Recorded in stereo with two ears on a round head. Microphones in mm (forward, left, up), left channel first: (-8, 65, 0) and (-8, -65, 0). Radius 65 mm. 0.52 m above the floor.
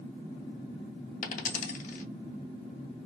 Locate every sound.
1.2 s a dropped coin: 55° left (ahead or behind), 0.6 m